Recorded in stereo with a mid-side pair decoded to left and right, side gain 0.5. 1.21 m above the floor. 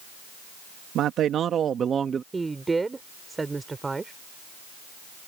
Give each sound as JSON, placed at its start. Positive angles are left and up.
{"t": 0.9, "sound": "a man speaking", "azimuth_deg": -65}
{"t": 2.3, "sound": "a woman speaking", "azimuth_deg": -20}